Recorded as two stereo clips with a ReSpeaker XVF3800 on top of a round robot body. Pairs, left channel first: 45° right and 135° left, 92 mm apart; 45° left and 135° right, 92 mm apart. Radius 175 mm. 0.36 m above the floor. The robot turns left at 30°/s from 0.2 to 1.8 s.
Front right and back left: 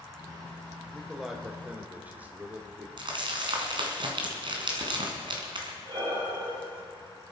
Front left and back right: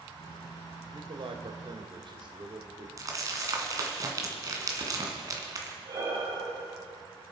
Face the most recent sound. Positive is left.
turn(degrees=175)